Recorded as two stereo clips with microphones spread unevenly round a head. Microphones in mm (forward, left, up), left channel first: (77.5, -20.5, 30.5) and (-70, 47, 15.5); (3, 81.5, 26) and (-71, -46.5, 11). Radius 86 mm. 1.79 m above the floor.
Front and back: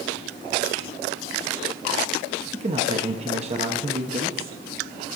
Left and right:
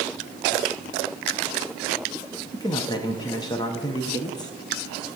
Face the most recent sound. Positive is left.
turn(degrees=110)